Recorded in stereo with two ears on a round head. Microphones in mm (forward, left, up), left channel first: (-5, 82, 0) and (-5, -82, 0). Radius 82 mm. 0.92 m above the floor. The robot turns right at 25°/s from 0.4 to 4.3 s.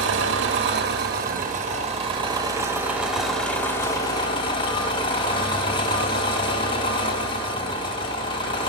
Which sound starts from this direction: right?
An engine running, at 0.0 s.